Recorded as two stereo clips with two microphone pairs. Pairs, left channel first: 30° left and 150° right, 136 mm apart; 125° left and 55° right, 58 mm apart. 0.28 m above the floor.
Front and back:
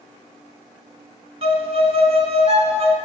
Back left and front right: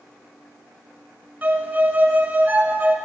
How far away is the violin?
About 1.2 m.